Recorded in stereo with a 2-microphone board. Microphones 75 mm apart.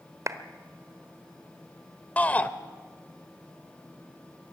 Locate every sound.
0.3 s a clap: 45° right (ahead or behind), 1.2 m
2.2 s a shout: 20° left (ahead or behind), 1.2 m